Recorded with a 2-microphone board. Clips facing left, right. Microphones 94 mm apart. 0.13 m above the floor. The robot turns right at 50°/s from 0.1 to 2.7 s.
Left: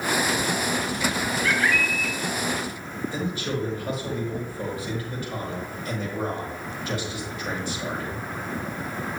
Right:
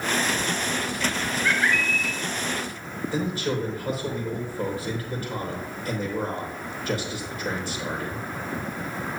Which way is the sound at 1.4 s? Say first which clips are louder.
Even; 75° right.